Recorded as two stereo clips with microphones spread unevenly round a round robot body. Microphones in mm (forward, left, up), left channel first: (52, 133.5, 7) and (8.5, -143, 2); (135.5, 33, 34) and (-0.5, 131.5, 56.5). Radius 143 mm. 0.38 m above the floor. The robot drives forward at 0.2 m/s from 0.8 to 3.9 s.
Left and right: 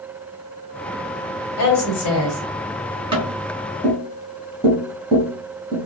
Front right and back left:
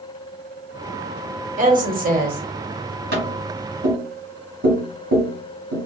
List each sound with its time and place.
1.6 s a woman speaking: 110° left, 1.8 m; by 3.0 s 120° left, 1.9 m
3.1 s tapping: 170° right, 1.4 m; by 5.9 s 175° right, 1.6 m